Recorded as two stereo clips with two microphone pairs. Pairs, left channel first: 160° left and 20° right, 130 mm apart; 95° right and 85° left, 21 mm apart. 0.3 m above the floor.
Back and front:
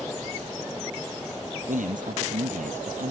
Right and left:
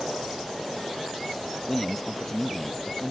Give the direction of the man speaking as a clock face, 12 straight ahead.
1 o'clock.